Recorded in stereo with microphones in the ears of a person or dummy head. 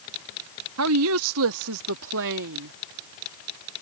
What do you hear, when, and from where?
0.8 s a woman speaking: 70° right (ahead or behind); by 2.7 s 55° right (ahead or behind)